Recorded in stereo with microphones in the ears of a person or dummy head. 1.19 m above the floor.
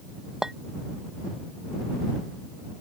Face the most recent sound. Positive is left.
turn(degrees=0)  # may be behind; listen again after turning